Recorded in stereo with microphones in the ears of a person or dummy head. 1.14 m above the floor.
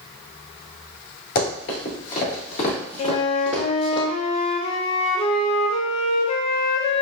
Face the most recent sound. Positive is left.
turn(degrees=35)  # may be behind; listen again after turning